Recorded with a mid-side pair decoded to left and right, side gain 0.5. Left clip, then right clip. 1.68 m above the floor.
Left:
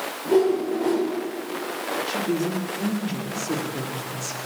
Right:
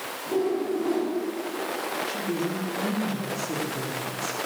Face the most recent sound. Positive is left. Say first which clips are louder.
# left 3 dB
turn(degrees=30)